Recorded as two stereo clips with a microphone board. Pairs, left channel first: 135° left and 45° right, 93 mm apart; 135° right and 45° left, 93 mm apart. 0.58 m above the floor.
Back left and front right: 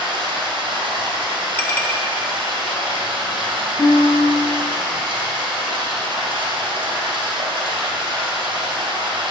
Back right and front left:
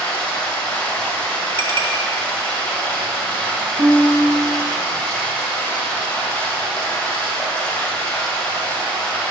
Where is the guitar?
10° left, 3 m.